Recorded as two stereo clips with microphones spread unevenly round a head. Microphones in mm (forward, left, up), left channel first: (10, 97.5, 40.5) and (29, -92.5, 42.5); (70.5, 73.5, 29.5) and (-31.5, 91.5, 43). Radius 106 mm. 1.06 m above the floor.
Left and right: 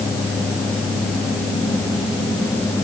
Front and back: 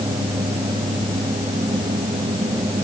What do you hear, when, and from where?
Only background noise.